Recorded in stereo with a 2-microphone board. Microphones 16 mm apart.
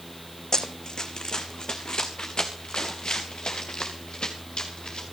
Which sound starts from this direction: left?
Running footsteps, at 0.5 s.